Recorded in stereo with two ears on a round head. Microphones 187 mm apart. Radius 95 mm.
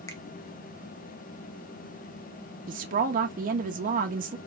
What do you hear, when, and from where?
0.1 s a finger snap: 15° left (ahead or behind), 0.9 m
2.7 s a woman speaking: 40° right (ahead or behind), 0.8 m